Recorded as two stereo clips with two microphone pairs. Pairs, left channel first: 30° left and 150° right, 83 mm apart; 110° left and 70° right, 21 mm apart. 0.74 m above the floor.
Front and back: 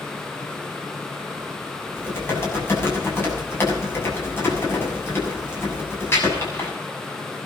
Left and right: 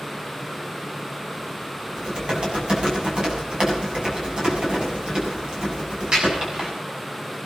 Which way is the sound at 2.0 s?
30° right.